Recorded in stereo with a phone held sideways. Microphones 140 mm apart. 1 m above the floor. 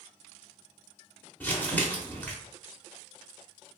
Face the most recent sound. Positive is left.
turn(degrees=15)  # may be behind; listen again after turning